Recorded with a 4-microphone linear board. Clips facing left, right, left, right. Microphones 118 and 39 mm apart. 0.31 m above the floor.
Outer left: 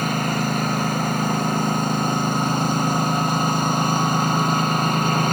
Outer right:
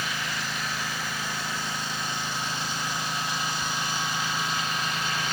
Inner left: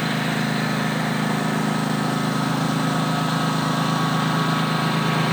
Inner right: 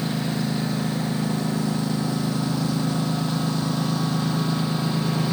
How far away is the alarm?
No alarm in this recording.